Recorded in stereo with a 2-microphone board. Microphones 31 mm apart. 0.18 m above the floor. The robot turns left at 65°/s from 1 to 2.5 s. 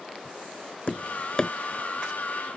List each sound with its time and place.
0.9 s tapping: 45° left (ahead or behind); by 1.5 s 20° left (ahead or behind)